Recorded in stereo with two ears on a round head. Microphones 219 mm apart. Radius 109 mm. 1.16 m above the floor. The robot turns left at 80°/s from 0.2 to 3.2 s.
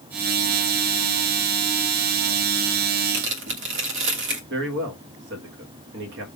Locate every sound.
3.1 s tearing paper: 45° right (ahead or behind), 1.7 m; by 4.4 s 50° right (ahead or behind), 1.7 m
4.5 s a man speaking: 45° right (ahead or behind), 1.5 m